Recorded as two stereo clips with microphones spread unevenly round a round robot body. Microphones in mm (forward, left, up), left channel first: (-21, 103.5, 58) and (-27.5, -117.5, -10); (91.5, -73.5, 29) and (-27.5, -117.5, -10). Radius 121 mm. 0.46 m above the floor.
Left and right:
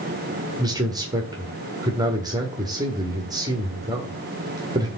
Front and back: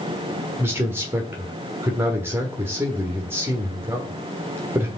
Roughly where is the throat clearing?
I don't hear throat clearing.